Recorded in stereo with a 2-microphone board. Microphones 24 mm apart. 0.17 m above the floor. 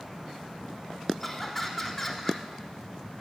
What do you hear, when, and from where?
1.2 s laughter: 5° left (ahead or behind), 1.0 m